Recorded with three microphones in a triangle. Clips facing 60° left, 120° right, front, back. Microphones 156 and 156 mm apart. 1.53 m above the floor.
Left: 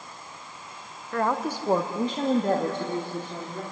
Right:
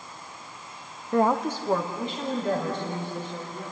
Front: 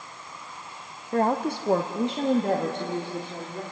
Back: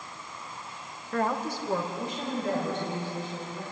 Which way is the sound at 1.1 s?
55° right.